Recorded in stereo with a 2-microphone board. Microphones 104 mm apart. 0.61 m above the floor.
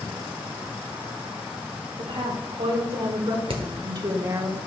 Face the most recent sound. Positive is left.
turn(degrees=-60)  # may be behind; listen again after turning